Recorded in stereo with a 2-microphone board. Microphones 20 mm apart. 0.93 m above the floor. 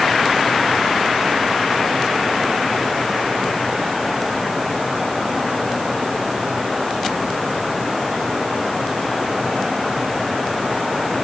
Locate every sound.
Only background noise.